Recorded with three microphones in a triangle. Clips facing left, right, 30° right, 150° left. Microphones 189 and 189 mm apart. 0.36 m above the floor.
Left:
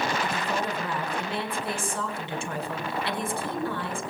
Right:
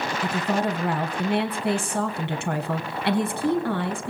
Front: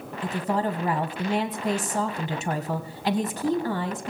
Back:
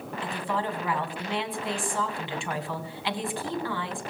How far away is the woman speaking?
About 2.5 m.